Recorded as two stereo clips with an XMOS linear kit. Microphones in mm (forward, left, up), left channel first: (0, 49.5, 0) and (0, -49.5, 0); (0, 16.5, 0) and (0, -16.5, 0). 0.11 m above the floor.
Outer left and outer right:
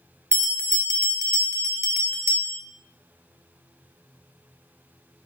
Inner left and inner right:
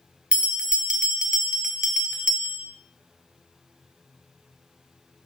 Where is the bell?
30° right (ahead or behind), 0.6 m.